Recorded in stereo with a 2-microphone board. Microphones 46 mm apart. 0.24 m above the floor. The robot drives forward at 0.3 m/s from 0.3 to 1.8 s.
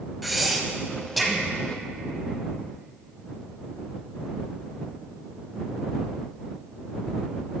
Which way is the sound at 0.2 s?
Centre (ahead or behind).